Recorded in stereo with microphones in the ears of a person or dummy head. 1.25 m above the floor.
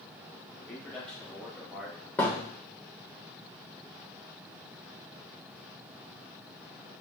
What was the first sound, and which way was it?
A man speaking, 10° left (ahead or behind).